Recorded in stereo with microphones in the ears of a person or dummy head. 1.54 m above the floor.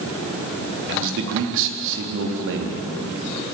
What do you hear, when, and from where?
0.9 s a man speaking: 70° right (ahead or behind), 3.5 m